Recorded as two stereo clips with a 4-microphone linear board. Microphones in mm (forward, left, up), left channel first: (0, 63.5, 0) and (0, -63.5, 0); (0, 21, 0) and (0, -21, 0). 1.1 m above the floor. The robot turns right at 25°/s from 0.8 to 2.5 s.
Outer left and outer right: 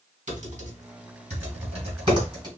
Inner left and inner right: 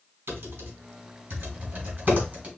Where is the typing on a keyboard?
70° right (ahead or behind), 3 m; by 2.5 s 30° right (ahead or behind), 3 m.